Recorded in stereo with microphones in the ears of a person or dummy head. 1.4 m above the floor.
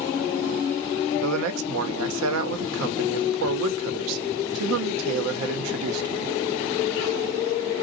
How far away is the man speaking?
About 1.0 m.